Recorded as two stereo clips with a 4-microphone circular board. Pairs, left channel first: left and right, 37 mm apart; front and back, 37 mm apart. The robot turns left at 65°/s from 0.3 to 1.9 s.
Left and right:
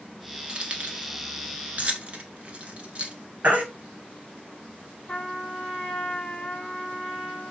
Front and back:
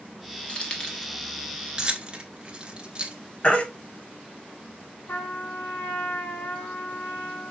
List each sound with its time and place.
0.5 s keys jangling: 35° right, 1.1 m; by 3.1 s 125° right, 1.1 m
3.4 s a baby crying: 55° right, 1.6 m
5.1 s a trumpet: 25° left, 1.6 m